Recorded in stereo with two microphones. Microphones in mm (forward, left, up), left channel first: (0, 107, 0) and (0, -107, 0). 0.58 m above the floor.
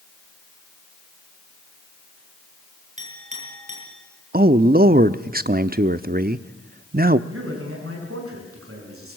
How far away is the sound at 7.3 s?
About 7 m.